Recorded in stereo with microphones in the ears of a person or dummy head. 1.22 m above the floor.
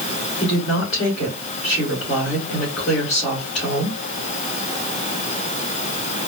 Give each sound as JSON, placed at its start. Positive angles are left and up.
{"t": 0.4, "sound": "a woman speaking", "side_deg": 40, "distance_m": 1.9}